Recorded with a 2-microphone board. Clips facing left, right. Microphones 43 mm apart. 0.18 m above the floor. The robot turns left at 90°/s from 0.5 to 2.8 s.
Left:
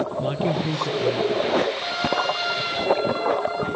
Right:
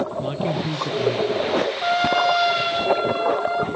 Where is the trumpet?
50° right, 5.5 m; by 3.6 s 140° right, 5.5 m.